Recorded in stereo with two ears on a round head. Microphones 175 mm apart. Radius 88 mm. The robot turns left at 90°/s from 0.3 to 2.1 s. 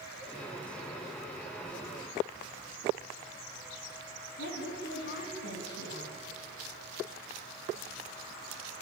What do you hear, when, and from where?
4.4 s a woman speaking: 60° left (ahead or behind), 5 m